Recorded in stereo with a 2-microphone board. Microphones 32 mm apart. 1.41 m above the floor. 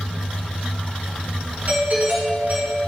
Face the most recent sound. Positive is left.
turn(degrees=-60)  # may be behind; listen again after turning